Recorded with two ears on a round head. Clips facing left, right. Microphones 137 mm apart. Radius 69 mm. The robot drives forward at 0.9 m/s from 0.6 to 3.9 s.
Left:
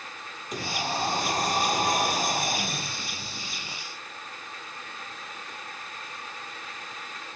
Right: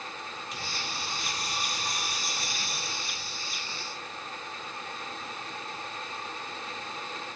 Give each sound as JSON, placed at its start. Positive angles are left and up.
{"t": 0.5, "sound": "a sliding door", "side_deg": 40}